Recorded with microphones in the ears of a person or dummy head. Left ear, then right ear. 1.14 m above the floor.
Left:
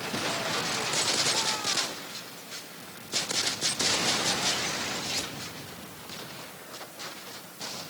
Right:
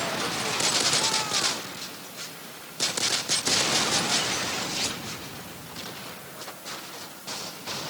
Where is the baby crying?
I don't hear a baby crying.